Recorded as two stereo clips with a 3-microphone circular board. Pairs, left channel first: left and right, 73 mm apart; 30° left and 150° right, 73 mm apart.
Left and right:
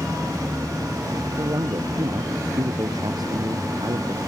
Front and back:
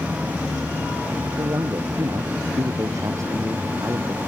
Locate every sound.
1.4 s a man speaking: 110° right; by 4.2 s 105° right